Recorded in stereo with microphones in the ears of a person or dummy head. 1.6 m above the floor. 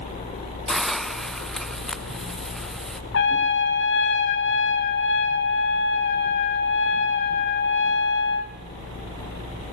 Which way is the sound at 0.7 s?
Centre (ahead or behind).